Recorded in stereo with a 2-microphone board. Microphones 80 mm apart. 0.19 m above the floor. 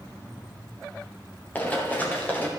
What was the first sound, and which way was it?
Running footsteps, 20° left (ahead or behind).